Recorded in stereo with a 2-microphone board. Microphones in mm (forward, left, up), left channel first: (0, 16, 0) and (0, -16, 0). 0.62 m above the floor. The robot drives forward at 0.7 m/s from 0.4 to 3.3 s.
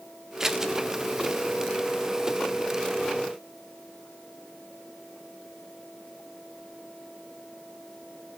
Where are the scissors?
15° right (ahead or behind), 1.3 m.